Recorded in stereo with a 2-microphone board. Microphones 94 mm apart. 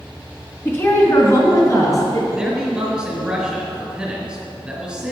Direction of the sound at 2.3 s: 10° right (ahead or behind).